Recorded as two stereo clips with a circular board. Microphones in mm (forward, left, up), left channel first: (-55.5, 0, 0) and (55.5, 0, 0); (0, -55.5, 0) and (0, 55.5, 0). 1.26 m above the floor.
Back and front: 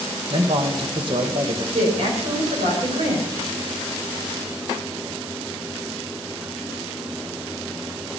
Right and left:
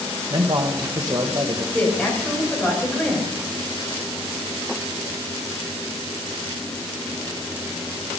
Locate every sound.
0.3 s a man speaking: 40° left, 1.3 m
1.7 s a woman speaking: 5° right, 5.5 m